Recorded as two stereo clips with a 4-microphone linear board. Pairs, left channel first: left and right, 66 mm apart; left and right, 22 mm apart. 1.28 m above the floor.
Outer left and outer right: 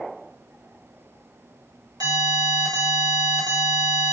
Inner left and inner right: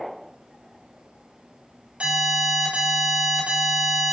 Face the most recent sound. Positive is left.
turn(degrees=-75)  # may be behind; listen again after turning